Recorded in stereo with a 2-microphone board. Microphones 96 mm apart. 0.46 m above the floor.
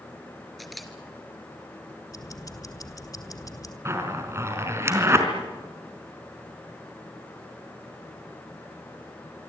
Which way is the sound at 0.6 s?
Centre (ahead or behind).